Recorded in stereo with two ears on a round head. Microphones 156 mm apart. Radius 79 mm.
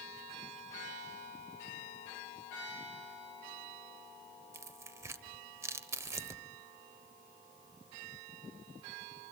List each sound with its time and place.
4.5 s tearing paper: 20° right (ahead or behind), 1.1 m